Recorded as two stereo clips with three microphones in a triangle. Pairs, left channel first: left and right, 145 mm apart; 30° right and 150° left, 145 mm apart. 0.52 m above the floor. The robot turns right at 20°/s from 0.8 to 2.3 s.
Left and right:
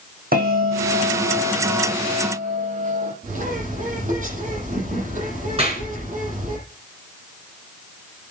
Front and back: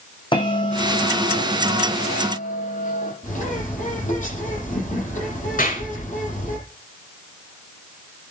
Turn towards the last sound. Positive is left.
turn(degrees=-45)